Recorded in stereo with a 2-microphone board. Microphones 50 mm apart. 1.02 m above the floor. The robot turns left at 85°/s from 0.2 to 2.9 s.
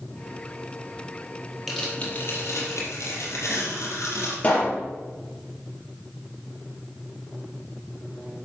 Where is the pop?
35° left (ahead or behind), 5 m.